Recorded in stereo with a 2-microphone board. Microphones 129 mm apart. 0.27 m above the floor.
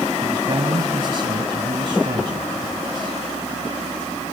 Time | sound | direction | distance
0.2 | a man speaking | 40° right (ahead or behind) | 2.0 m